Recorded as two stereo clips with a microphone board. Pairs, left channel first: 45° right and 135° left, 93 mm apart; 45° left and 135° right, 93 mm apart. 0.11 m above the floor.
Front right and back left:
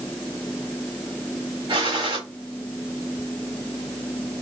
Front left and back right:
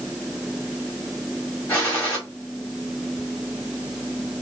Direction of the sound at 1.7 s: 120° left.